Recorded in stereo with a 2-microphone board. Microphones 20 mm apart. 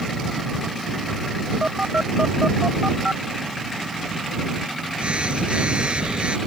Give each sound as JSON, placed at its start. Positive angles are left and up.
{"t": 1.6, "sound": "a phone buzzing", "side_deg": -65}